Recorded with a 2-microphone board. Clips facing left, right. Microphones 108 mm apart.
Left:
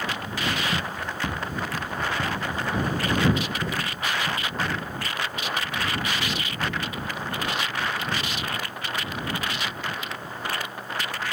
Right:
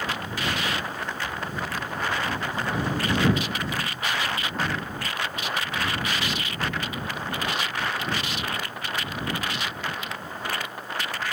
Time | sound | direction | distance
0.7 | running footsteps | 55° left (ahead or behind) | ?